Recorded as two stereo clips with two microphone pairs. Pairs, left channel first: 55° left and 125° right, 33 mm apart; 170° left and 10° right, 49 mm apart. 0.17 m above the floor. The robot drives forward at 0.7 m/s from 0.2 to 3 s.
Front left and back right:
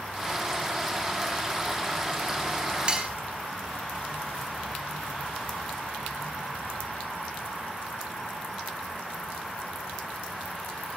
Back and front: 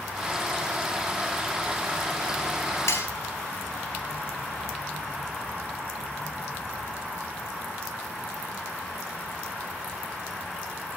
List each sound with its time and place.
2.9 s cutlery clinking: 175° left, 1.6 m